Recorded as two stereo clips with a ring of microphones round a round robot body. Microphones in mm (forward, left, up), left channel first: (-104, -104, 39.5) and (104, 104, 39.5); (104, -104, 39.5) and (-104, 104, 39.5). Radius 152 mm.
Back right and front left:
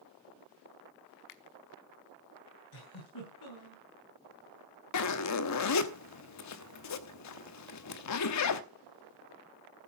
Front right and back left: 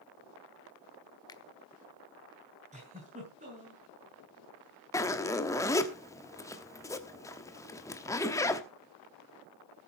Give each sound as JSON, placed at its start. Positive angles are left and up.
{"t": 1.3, "sound": "a finger snap", "azimuth_deg": -120, "distance_m": 1.1}
{"t": 2.7, "sound": "a giggle", "azimuth_deg": -155, "distance_m": 7.0}
{"t": 4.9, "sound": "a zipper", "azimuth_deg": -125, "distance_m": 1.1}